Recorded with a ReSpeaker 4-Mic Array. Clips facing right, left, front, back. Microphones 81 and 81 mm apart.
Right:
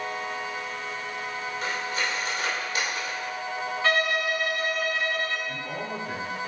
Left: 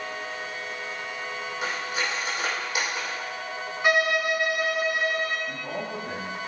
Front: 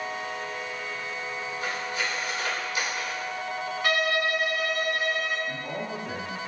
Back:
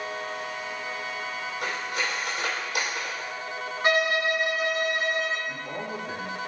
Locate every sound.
1.6 s cutlery clinking: 160° left, 2.5 m
3.8 s a violin: 150° left, 0.8 m
5.5 s a man speaking: 55° left, 2.5 m